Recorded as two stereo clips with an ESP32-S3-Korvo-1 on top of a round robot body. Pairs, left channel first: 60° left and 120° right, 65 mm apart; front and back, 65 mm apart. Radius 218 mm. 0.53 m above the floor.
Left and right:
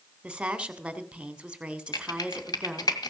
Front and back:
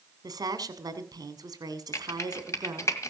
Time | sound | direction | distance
0.2 | a woman speaking | 165° left | 2.5 m
1.9 | typing on a keyboard | 45° left | 1.9 m